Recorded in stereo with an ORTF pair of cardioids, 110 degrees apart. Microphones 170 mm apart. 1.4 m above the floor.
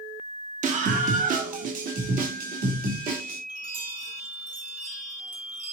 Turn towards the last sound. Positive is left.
turn(degrees=-55)